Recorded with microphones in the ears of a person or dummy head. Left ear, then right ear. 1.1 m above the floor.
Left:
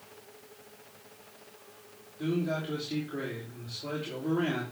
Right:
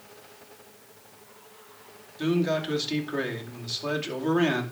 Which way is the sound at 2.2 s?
50° right (ahead or behind).